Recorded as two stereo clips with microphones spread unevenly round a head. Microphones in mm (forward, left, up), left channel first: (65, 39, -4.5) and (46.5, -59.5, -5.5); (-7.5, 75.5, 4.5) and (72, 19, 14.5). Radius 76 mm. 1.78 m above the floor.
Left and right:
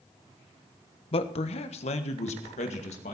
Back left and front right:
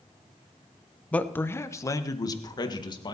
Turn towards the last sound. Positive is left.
turn(degrees=105)